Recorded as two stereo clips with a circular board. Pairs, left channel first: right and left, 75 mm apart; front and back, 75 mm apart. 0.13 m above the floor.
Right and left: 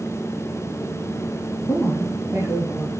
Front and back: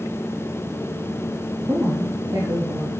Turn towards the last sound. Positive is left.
turn(degrees=-160)